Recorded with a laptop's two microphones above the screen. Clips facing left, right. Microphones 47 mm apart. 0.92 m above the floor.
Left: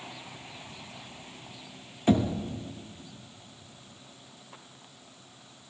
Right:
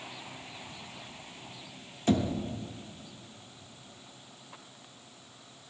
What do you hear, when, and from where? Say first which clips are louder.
2.1 s knocking: left 3 dB; 15° left (ahead or behind), 0.8 m